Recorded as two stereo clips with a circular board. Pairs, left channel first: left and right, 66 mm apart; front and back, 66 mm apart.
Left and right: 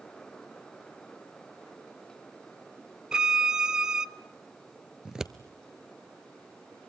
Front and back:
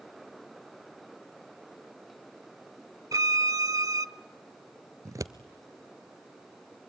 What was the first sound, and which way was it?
A violin, 170° right.